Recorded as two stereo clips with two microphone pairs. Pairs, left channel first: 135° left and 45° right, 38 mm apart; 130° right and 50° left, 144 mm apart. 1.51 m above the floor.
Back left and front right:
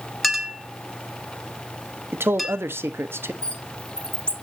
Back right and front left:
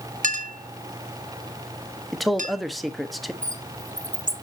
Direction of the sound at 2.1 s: 40° right.